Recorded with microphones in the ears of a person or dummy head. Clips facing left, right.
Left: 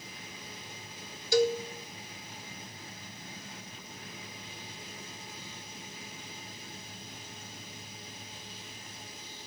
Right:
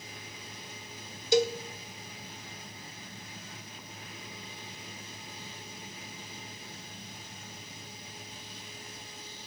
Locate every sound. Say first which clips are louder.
1.3 s a cowbell: even; 20° right (ahead or behind), 0.6 m